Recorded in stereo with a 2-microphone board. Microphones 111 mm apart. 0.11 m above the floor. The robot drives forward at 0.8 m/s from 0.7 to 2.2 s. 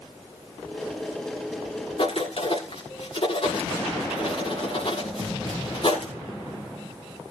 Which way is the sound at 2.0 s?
60° left (ahead or behind).